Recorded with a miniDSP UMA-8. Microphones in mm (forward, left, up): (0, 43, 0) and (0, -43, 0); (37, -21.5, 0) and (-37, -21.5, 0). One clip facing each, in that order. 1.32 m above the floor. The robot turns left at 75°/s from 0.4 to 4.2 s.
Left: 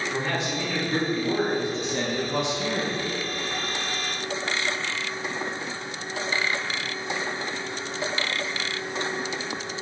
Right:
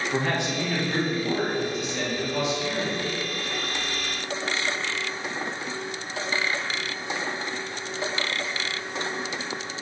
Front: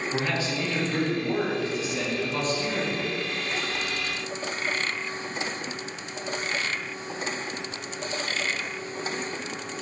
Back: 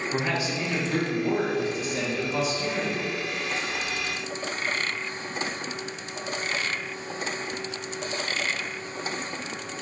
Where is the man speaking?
110° right, 1.8 m; by 3.0 s 55° left, 1.8 m.